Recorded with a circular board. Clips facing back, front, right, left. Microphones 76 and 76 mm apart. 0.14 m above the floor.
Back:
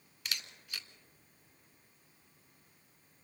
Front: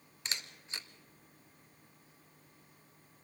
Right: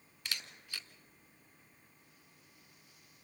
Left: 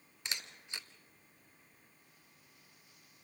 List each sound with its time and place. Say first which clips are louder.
0.2 s a camera shutter: front 1 dB, even; 40° left, 1.0 m